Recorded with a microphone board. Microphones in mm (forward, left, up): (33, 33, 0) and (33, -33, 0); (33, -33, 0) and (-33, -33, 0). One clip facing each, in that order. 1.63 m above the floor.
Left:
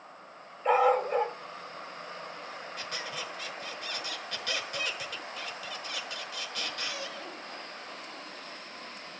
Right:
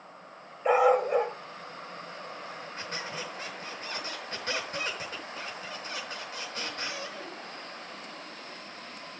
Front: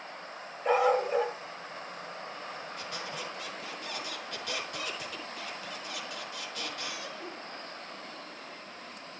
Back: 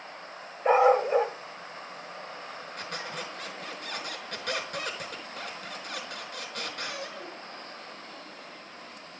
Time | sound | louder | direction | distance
0.7 | a dog barking | right 2 dB, back 5 dB | 150° right | 1.6 m
2.8 | a squeak | right 2 dB, back 4 dB | 145° right | 5.5 m